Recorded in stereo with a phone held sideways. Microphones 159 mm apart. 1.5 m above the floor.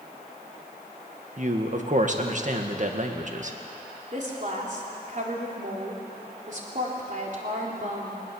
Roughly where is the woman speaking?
Right.